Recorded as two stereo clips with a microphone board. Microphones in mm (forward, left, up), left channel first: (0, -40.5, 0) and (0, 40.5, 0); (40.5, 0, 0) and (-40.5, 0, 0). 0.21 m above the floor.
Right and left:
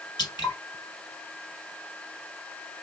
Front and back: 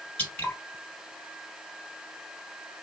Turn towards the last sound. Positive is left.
turn(degrees=-75)